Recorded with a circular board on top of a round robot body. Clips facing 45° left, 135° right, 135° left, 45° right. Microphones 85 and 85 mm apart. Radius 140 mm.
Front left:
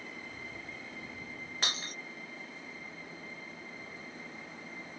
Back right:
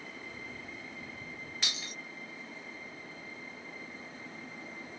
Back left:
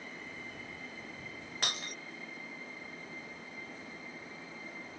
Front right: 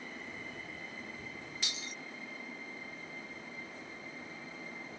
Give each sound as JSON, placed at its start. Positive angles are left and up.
{"t": 1.6, "sound": "breaking glass", "azimuth_deg": 95}